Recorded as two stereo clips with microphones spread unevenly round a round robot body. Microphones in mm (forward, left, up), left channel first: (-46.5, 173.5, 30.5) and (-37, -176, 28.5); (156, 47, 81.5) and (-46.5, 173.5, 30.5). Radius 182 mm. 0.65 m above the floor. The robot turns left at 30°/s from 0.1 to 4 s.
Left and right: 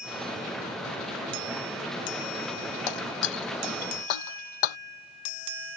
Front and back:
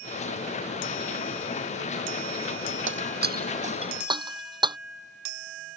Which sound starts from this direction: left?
Breaking glass, at 2.9 s.